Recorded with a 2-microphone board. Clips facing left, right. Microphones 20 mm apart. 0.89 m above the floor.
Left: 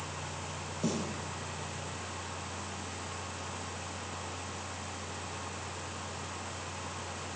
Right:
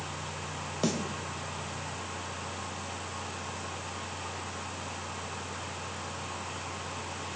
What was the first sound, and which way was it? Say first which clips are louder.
A snare drum: right 3 dB; 50° right (ahead or behind).